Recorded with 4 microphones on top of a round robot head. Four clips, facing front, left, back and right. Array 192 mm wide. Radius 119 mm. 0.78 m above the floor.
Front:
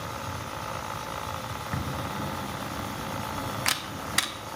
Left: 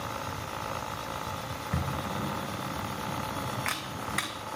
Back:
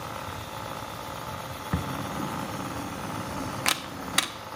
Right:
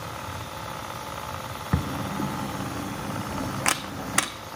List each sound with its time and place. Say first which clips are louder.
1.7 s a camera shutter: right 5 dB, back 3 dB; 105° right, 0.6 m